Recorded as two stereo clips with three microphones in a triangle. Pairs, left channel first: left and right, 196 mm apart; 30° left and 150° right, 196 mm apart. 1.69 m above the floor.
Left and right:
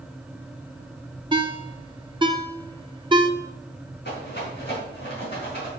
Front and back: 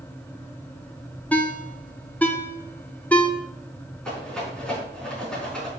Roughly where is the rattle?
Behind left.